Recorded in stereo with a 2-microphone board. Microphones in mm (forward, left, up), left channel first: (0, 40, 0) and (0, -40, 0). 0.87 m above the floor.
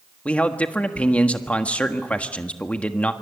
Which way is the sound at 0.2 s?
15° left (ahead or behind).